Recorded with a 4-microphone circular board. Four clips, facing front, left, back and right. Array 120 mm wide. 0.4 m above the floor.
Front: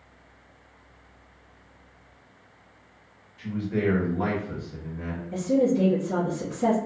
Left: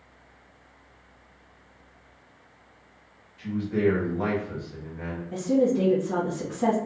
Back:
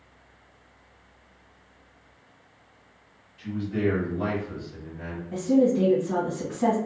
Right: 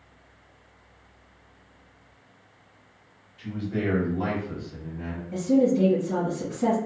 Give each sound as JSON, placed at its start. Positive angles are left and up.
{"t": 3.4, "sound": "a man speaking", "azimuth_deg": 0, "distance_m": 1.5}
{"t": 5.3, "sound": "a woman speaking", "azimuth_deg": 130, "distance_m": 1.3}